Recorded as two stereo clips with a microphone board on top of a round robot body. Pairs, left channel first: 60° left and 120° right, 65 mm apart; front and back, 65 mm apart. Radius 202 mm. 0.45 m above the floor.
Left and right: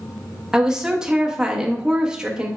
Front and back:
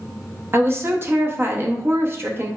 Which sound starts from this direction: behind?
A woman speaking, at 0.5 s.